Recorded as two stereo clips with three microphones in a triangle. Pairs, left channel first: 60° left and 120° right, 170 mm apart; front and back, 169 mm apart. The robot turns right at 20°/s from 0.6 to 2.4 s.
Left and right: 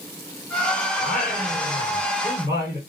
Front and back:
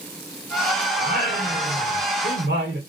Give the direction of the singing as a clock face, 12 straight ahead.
7 o'clock.